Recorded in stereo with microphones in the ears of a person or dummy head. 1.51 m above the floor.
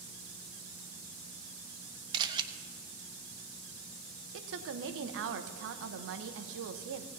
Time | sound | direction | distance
2.1 | a camera shutter | 25° right (ahead or behind) | 0.7 m
4.3 | a woman speaking | 70° right (ahead or behind) | 0.9 m